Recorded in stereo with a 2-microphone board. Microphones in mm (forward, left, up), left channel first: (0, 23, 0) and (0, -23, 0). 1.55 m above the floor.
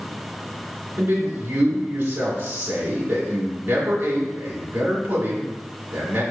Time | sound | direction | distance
1.0 | a man speaking | 45° right (ahead or behind) | 2.0 m